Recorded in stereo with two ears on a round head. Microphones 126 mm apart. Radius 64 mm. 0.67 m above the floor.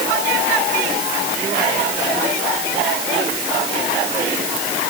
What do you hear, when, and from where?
Only background noise.